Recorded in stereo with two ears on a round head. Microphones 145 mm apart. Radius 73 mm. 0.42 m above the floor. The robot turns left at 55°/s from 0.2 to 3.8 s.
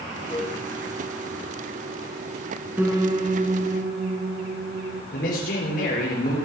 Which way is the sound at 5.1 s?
65° left (ahead or behind).